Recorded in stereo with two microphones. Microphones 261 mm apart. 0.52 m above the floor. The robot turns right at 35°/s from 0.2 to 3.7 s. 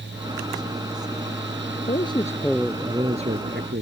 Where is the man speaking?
155° left; by 3.8 s 140° right.